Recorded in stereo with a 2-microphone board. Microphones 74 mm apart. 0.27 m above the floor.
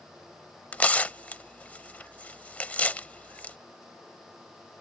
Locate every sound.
0.7 s tearing paper: 20° left (ahead or behind)